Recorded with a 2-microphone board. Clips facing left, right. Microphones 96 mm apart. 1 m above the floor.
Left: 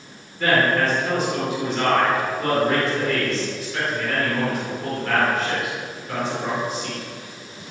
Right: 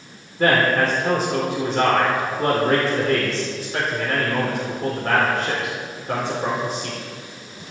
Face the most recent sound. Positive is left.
turn(degrees=-40)  # may be behind; listen again after turning